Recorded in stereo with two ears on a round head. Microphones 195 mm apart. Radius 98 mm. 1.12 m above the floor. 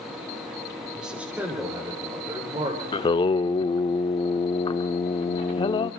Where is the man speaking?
5° right (ahead or behind), 3 m; by 2.8 s 25° right (ahead or behind), 3.5 m.